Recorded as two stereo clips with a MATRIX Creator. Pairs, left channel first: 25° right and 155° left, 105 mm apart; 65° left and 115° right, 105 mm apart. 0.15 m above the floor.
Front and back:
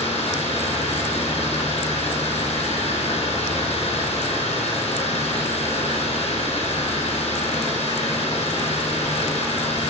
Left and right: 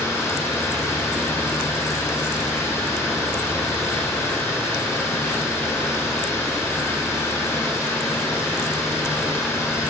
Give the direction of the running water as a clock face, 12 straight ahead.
12 o'clock.